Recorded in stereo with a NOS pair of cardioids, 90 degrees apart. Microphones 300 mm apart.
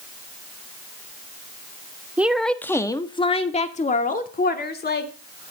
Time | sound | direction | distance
2.2 | a woman speaking | 5° right | 1.1 m